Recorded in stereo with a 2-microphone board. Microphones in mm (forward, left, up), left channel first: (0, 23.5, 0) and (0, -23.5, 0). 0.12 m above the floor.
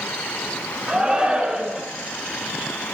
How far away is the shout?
About 1.1 m.